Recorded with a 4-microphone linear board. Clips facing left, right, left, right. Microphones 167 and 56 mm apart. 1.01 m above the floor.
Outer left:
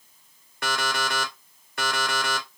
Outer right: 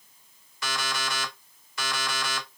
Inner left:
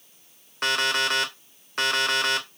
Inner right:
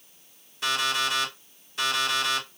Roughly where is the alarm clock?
Left.